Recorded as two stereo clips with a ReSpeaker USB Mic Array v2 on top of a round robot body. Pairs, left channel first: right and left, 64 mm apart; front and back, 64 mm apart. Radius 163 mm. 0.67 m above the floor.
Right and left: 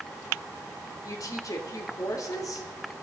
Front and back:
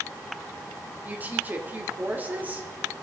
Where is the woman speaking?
120° right, 2.5 m.